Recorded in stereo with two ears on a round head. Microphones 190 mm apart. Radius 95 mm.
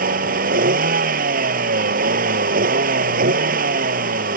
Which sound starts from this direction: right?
A vehicle, at 0.0 s.